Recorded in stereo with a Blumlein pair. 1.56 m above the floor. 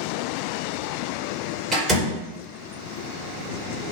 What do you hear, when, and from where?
1.7 s a door slam: 20° right, 1.2 m